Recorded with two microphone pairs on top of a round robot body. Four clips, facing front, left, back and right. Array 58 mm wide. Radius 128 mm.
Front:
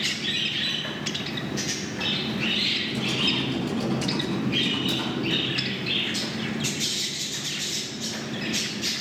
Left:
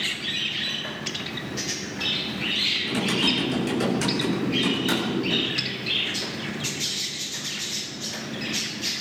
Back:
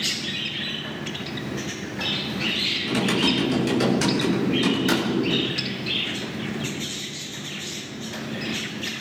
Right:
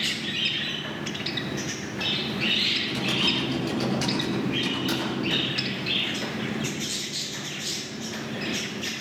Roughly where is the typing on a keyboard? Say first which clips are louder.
Left 2 dB, back 5 dB; behind.